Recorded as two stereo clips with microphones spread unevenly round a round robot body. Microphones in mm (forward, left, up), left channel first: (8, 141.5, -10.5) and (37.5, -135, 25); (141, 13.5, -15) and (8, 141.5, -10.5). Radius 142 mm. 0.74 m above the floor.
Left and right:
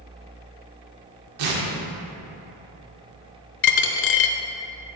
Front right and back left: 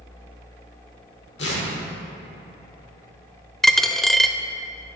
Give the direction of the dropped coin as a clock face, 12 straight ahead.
11 o'clock.